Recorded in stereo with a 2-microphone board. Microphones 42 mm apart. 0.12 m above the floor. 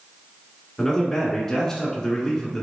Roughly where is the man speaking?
Centre.